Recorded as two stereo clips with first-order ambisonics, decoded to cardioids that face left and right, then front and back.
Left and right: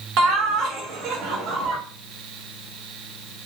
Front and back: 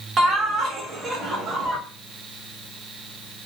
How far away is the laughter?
About 1.1 m.